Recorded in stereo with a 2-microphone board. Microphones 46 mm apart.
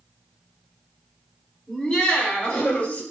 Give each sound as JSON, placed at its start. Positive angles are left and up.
{"t": 1.7, "sound": "laughter", "side_deg": 15, "distance_m": 3.0}